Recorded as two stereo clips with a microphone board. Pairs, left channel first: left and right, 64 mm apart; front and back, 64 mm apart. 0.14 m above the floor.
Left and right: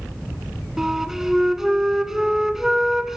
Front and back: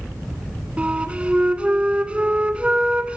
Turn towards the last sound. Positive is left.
turn(degrees=-160)